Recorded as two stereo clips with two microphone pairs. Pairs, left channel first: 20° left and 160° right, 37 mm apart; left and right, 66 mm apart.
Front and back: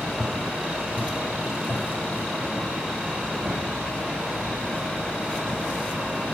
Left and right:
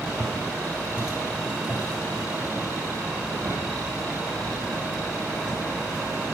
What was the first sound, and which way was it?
Footsteps, 125° right.